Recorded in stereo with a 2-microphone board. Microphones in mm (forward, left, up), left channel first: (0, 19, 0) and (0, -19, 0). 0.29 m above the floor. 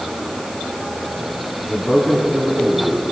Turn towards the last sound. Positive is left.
turn(degrees=10)  # may be behind; listen again after turning